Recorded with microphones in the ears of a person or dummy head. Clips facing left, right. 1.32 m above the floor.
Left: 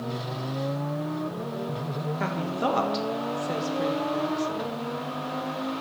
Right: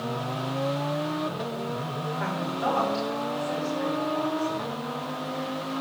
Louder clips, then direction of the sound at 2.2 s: Left 1 dB; 45° left (ahead or behind).